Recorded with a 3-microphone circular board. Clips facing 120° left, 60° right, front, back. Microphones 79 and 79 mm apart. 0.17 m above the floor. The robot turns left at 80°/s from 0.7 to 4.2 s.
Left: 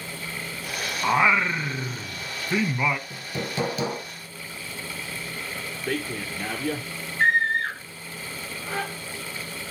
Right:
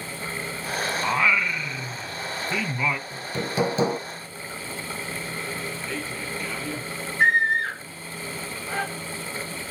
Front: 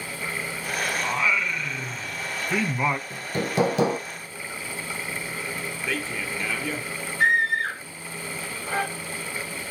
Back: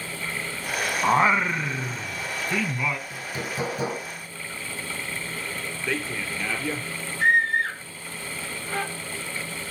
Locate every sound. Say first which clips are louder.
1.0 s singing: left 3 dB, back 8 dB; 170° right, 0.6 m; by 3.0 s 35° left, 0.6 m
3.1 s hammering: right 3 dB, front 5 dB; 55° left, 2.0 m; by 4.0 s 20° right, 2.0 m
5.9 s a man speaking: left 2 dB, back 1 dB; 90° left, 2.5 m
7.2 s a scream: right 1 dB, back 1 dB; 15° left, 6 m